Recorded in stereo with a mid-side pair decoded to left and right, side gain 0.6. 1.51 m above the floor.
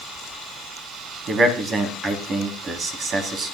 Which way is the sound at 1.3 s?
45° right.